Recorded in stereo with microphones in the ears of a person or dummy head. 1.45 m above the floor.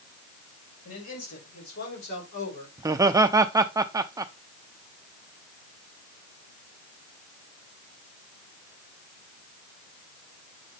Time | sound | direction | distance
0.8 | a man speaking | 70° left (ahead or behind) | 5.5 m
2.8 | laughter | 20° right (ahead or behind) | 0.6 m